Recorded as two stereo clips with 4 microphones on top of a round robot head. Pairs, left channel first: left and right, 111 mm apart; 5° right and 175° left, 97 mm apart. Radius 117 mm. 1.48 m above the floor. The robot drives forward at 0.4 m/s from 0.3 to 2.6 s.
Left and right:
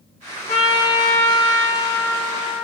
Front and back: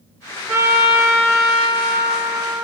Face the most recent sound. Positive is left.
turn(degrees=130)